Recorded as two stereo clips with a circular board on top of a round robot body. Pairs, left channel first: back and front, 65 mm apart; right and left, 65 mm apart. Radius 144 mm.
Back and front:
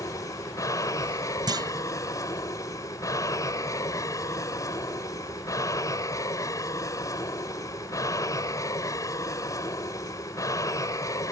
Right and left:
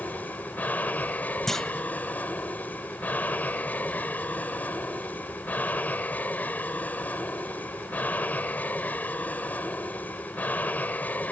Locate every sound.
0.0 s an aircraft: 155° right
1.5 s a clunk: 5° right